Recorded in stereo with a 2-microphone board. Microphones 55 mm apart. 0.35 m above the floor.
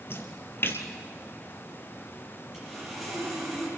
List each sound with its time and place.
0.1 s a splash: 45° left (ahead or behind), 1.8 m
2.5 s sawing: 5° right (ahead or behind), 8.5 m